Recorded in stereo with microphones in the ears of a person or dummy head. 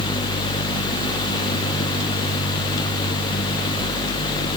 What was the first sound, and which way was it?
Only background noise.